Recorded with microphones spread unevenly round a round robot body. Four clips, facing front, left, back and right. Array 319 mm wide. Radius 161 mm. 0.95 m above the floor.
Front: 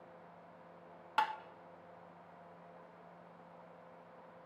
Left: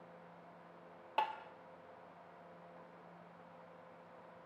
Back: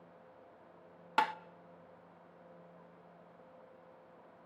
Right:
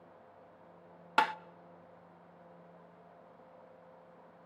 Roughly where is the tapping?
Right.